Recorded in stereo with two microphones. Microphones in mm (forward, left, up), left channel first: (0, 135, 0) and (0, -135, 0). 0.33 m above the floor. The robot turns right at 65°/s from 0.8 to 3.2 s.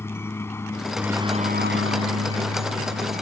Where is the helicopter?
170° left; by 3.2 s 35° right.